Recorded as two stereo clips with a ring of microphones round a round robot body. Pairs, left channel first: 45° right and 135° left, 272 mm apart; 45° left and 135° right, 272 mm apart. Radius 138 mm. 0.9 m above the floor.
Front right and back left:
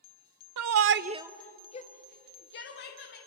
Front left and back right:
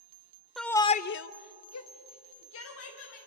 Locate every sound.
0.6 s a shout: 135° left, 0.7 m; by 3.2 s straight ahead, 2 m